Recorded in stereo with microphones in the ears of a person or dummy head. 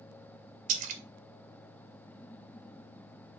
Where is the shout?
I don't hear a shout.